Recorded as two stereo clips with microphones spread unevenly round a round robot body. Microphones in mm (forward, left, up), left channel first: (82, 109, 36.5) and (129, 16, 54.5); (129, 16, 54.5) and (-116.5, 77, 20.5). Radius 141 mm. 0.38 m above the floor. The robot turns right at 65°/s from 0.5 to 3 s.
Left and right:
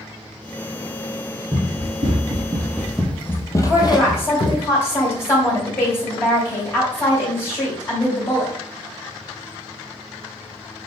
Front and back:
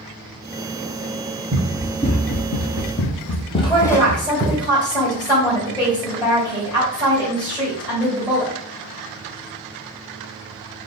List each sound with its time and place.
1.5 s running footsteps: 130° right, 1.0 m; by 4.6 s 75° left, 1.2 m
3.7 s a woman speaking: 60° left, 2 m